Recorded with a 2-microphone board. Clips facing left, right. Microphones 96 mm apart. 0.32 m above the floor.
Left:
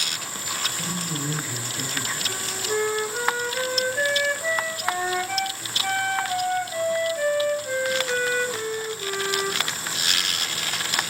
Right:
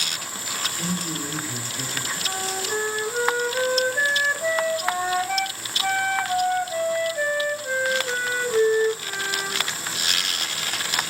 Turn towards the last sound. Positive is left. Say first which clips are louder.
# right 3 dB
turn(degrees=-30)  # may be behind; listen again after turning